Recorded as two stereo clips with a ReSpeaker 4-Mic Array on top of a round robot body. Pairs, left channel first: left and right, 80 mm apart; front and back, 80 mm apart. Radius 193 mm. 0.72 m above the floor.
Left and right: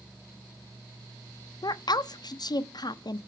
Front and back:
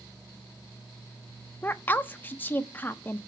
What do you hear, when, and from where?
1.6 s a woman speaking: 65° left, 0.7 m